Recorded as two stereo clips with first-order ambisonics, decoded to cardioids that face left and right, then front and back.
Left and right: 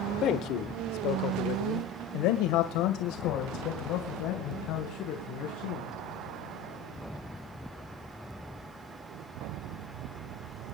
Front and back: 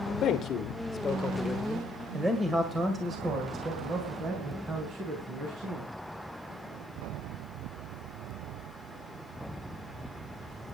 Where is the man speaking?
45° left, 1.4 m; by 5.9 s 130° left, 4 m.